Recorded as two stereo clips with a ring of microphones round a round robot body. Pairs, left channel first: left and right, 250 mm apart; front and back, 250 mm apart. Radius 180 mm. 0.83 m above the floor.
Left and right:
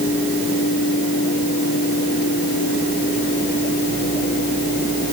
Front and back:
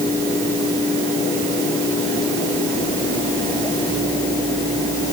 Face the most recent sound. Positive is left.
No sound to turn to.